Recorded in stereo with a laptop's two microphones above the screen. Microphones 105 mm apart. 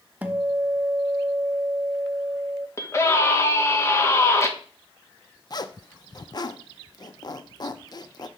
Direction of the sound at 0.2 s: 15° right (ahead or behind).